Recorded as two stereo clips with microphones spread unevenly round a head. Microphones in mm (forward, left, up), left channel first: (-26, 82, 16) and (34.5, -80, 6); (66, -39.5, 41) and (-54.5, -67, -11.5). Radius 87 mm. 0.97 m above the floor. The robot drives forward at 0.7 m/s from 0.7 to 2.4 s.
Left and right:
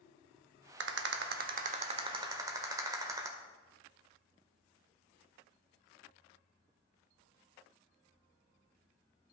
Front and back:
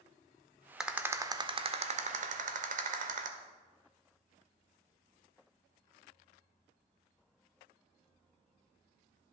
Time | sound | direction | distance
0.8 | a rattle | 65° right | 0.9 m